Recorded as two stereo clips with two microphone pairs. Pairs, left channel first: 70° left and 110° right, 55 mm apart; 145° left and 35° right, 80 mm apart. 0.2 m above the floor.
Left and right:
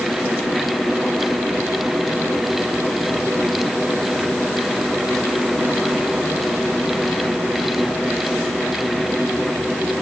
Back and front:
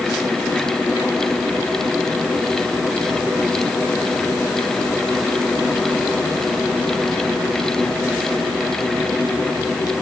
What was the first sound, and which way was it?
Only background noise.